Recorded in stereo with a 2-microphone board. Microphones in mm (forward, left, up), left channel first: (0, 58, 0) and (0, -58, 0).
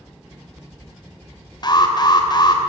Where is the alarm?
40° left (ahead or behind), 2.5 m.